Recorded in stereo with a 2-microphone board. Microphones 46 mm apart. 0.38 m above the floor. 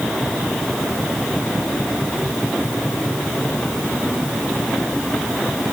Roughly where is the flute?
No flute in this recording.